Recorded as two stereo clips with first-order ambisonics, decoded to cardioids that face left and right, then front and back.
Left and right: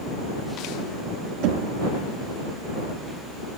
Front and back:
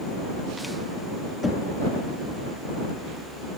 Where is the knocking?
80° right.